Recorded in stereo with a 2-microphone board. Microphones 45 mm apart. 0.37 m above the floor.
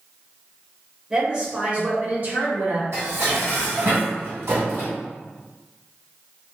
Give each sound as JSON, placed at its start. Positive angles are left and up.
{"t": 1.1, "sound": "a woman speaking", "side_deg": -10, "distance_m": 1.1}
{"t": 2.9, "sound": "dishes clattering", "side_deg": -75, "distance_m": 1.6}